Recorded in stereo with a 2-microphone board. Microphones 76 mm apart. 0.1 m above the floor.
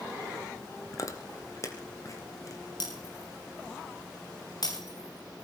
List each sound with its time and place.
0.9 s chewing: 45° left (ahead or behind), 2.5 m
2.8 s breaking glass: 60° left (ahead or behind), 8 m